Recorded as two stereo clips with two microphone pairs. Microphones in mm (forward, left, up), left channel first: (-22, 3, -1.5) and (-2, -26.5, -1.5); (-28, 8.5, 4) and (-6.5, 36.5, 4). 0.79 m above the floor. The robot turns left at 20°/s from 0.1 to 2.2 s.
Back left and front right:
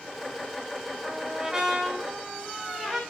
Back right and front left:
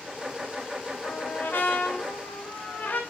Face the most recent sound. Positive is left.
turn(degrees=-150)